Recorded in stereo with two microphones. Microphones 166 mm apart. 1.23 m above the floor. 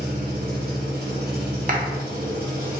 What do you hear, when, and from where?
0.0 s an engine running: 60° right (ahead or behind), 1.2 m
1.7 s a clap: 50° right (ahead or behind), 0.6 m